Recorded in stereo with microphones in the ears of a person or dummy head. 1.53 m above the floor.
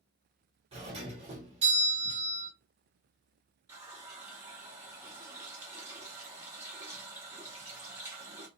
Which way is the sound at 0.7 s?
30° right (ahead or behind).